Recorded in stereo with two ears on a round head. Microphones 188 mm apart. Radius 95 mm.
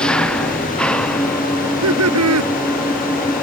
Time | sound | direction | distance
0.0 | an engine running | 5° left (ahead or behind) | ?
1.6 | laughter | 80° right | ?